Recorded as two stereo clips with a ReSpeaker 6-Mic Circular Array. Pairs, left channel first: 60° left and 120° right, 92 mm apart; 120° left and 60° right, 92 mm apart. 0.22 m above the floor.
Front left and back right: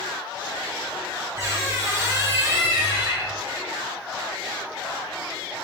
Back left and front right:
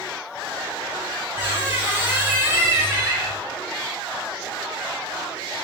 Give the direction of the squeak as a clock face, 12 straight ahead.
3 o'clock.